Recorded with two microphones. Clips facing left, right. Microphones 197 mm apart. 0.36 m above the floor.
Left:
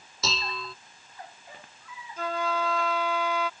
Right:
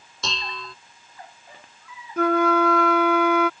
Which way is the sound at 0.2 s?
5° left (ahead or behind).